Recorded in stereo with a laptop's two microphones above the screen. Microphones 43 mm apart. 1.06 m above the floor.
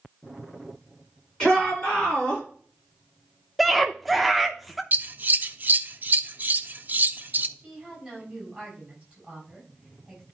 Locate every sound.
1.4 s a shout: 10° left (ahead or behind), 5 m
3.6 s a scream: centre (ahead or behind), 0.7 m
4.9 s scissors: 40° right (ahead or behind), 0.5 m
7.6 s a woman speaking: 15° right (ahead or behind), 6 m